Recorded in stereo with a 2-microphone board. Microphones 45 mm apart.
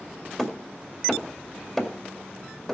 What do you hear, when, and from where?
0.4 s hammering: 5° left (ahead or behind), 1.8 m